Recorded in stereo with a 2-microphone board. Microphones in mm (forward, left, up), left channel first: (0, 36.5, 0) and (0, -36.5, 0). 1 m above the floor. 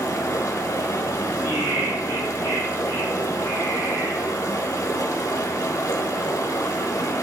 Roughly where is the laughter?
Right.